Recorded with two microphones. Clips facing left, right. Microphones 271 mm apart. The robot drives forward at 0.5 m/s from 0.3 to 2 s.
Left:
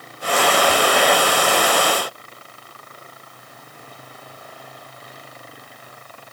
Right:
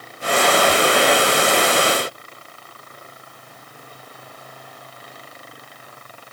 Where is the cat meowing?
I don't hear a cat meowing.